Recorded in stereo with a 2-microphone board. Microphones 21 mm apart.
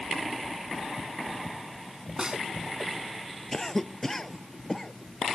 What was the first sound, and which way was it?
A snare drum, 35° right (ahead or behind).